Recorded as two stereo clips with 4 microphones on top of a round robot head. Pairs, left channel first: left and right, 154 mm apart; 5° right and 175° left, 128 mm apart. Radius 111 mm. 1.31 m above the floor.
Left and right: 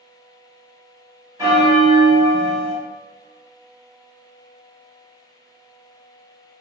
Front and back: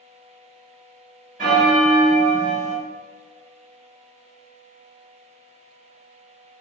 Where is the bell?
150° right, 1.5 m.